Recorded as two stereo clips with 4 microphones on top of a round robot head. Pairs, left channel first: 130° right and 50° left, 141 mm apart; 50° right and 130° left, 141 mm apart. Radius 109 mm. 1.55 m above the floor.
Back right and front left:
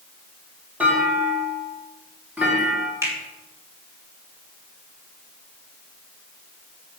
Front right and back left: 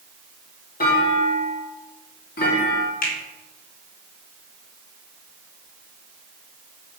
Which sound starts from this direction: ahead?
A finger snap, at 3.0 s.